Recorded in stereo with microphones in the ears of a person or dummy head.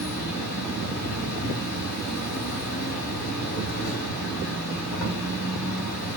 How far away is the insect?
About 3 m.